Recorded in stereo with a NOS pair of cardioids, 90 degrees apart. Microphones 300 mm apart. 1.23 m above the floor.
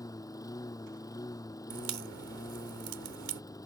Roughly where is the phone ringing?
No phone ringing in this recording.